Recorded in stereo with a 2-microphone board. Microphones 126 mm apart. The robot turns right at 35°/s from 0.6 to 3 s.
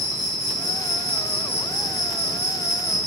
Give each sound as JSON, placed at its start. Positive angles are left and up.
{"t": 0.0, "sound": "an insect", "azimuth_deg": -45, "distance_m": 5.0}